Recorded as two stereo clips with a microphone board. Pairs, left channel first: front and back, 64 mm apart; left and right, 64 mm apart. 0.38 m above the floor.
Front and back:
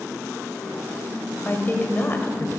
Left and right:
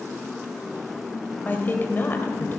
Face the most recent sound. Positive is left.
turn(degrees=45)